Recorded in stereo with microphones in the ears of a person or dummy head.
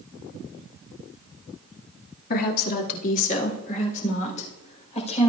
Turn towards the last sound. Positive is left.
turn(degrees=30)  # may be behind; listen again after turning